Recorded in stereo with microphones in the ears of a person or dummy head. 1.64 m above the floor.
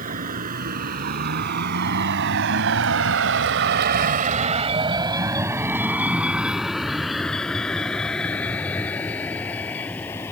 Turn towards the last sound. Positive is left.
turn(degrees=10)  # may be behind; listen again after turning